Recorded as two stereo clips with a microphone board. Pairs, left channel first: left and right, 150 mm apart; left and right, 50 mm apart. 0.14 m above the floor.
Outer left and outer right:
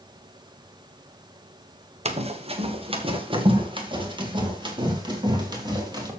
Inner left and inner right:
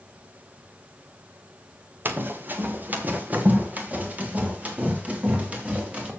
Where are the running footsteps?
45° right (ahead or behind), 1.7 m; by 6.1 s 30° right (ahead or behind), 4 m.